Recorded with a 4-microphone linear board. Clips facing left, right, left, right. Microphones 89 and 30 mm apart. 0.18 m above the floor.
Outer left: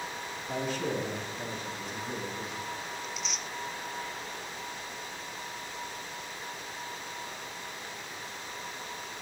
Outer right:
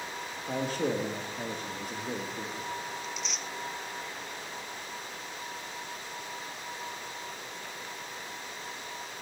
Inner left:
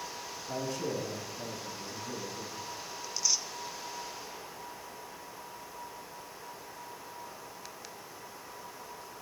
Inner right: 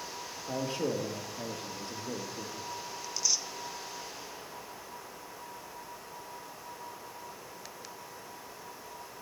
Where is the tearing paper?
Centre (ahead or behind), 0.6 m.